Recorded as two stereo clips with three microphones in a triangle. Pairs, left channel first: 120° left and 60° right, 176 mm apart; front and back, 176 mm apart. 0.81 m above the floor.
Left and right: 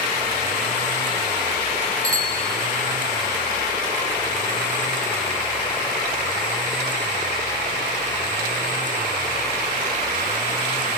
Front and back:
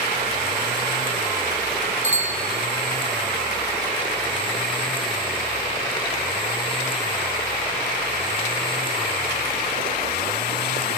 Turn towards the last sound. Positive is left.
turn(degrees=-130)